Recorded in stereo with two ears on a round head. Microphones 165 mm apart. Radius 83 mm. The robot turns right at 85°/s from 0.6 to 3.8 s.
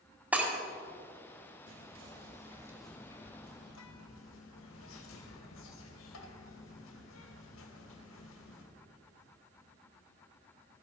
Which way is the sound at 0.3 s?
10° right (ahead or behind).